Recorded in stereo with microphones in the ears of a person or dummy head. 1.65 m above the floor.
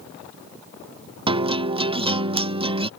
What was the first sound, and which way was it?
A guitar, 25° right (ahead or behind).